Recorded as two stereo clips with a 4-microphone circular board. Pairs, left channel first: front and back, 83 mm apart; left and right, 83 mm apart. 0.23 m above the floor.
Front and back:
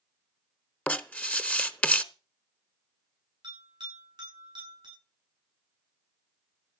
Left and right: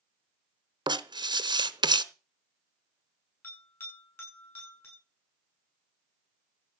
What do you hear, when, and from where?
0.9 s writing: 70° right, 0.9 m
3.4 s a bell: 155° left, 8 m